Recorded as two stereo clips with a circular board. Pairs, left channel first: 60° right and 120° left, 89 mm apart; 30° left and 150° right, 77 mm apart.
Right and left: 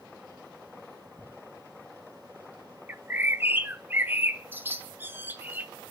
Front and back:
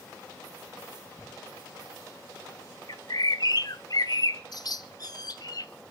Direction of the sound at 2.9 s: 55° left.